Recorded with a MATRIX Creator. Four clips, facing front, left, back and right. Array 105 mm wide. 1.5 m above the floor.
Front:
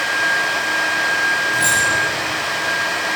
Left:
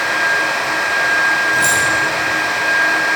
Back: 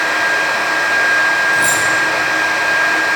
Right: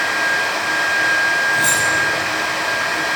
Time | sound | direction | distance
1.5 | keys jangling | 120° left | 6.5 m